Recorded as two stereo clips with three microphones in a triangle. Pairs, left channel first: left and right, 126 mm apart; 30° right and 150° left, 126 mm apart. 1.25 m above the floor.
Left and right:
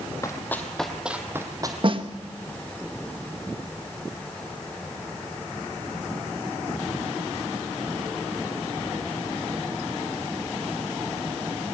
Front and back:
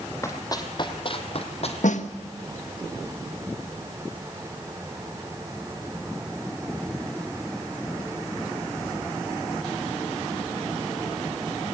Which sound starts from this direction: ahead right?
A snare drum, at 1.8 s.